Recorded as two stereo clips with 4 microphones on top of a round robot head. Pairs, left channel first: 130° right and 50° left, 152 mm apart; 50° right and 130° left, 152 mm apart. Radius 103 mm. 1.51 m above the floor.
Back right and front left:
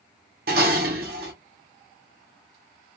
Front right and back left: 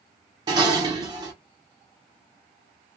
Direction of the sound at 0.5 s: 65° left.